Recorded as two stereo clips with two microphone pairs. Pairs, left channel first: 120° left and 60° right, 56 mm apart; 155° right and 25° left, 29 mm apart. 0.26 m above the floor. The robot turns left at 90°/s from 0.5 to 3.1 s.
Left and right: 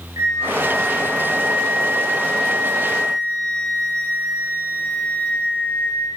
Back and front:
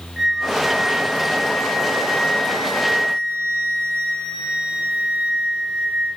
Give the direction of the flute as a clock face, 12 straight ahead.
2 o'clock.